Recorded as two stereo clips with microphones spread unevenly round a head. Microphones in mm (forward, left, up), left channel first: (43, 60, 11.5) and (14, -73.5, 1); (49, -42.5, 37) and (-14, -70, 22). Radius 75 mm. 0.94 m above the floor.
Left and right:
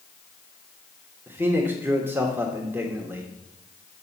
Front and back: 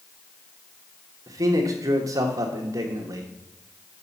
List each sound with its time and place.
1.3 s a man speaking: 175° right, 1.3 m